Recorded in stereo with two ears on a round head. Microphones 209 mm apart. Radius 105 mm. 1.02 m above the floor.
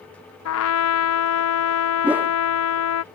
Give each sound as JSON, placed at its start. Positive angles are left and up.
{"t": 0.5, "sound": "a trumpet", "side_deg": 65}
{"t": 2.0, "sound": "a whoosh", "side_deg": -5}